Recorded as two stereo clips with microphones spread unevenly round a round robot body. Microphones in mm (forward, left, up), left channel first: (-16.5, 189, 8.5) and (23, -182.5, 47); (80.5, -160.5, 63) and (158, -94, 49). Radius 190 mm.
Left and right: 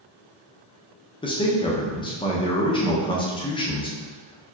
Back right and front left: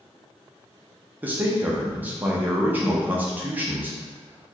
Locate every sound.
1.2 s a man speaking: 55° left, 0.6 m